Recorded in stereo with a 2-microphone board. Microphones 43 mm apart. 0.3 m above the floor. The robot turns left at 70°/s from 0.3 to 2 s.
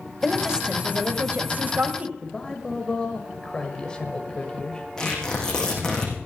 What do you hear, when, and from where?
0.2 s a woman speaking: 10° right, 1.7 m; by 2.1 s 130° right, 1.7 m
2.2 s a man speaking: 20° left (ahead or behind), 1.3 m
5.0 s tearing paper: 15° left (ahead or behind), 5.5 m